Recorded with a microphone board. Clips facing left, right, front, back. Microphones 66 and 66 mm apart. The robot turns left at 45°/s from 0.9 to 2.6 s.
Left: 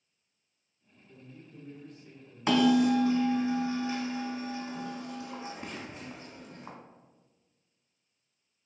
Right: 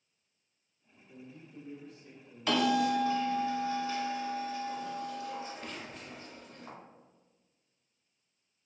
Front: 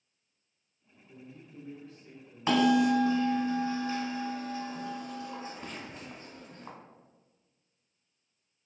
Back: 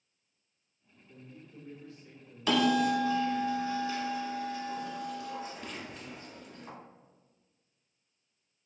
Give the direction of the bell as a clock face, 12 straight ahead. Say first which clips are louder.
Left 4 dB, front 2 dB; 11 o'clock.